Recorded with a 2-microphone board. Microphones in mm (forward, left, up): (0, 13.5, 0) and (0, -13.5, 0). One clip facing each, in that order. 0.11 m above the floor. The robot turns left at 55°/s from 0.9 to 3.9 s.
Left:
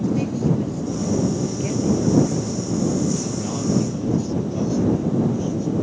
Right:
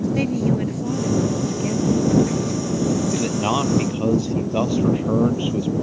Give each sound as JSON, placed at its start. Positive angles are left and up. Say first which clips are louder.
{"t": 0.1, "sound": "a woman speaking", "louder": "right 1 dB", "azimuth_deg": -125}
{"t": 3.1, "sound": "a man speaking", "louder": "right 5 dB", "azimuth_deg": -60}